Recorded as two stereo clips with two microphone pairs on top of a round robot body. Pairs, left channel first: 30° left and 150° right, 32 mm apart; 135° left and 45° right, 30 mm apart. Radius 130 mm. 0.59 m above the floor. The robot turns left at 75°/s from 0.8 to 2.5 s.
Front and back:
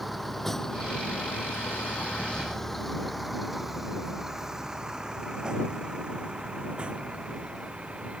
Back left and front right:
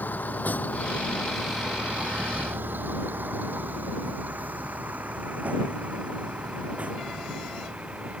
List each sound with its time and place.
0.0 s a vehicle: 120° left; by 8.2 s 95° right